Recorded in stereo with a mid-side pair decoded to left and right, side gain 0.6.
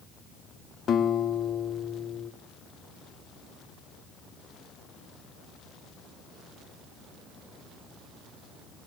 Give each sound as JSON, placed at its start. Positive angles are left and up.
{"t": 0.9, "sound": "a guitar", "azimuth_deg": 45, "distance_m": 1.6}